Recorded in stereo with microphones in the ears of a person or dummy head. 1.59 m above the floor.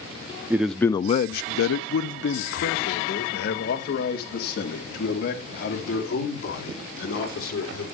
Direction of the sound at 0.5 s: 15° right (ahead or behind).